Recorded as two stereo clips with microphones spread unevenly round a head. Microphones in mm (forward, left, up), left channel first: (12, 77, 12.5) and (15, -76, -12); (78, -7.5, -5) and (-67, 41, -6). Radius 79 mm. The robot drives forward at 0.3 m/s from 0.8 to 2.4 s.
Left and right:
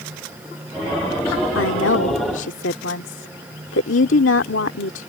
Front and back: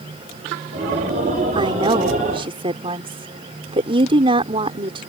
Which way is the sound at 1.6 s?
100° left.